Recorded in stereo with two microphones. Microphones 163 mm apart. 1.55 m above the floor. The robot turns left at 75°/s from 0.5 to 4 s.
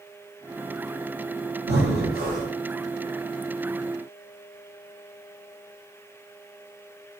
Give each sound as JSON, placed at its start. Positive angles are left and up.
{"t": 1.7, "sound": "breathing", "azimuth_deg": -75, "distance_m": 1.3}